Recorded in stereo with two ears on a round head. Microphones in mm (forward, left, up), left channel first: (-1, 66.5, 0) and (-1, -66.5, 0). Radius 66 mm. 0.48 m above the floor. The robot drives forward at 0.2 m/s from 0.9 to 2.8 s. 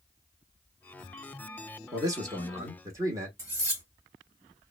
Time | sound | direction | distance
1.9 | a man speaking | 25° right (ahead or behind) | 0.9 m
3.4 | cutlery clinking | 25° right (ahead or behind) | 1.8 m